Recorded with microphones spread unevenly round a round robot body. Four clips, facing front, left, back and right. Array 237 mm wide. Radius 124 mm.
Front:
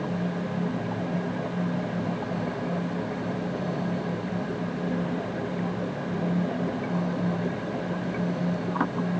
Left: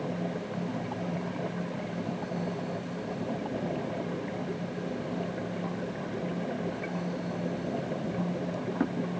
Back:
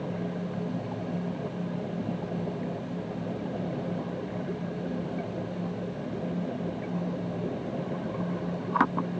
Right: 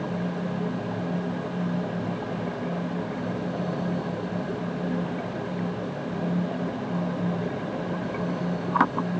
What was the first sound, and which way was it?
Only background noise.